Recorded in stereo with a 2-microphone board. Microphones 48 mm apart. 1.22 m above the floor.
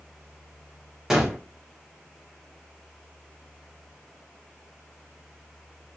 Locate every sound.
1.1 s a gunshot: 10° right (ahead or behind), 1.5 m